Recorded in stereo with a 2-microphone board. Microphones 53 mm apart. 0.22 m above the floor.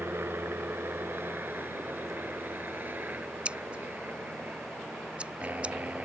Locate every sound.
0.0 s a helicopter: 50° right (ahead or behind); by 6.1 s 30° right (ahead or behind)
3.5 s scissors: 20° right (ahead or behind)